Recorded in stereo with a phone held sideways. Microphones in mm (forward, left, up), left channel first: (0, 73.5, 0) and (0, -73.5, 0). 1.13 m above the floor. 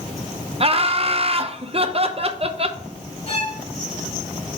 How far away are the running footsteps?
I don't hear running footsteps.